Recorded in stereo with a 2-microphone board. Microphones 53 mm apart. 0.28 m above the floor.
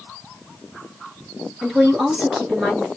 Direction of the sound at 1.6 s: 15° right (ahead or behind).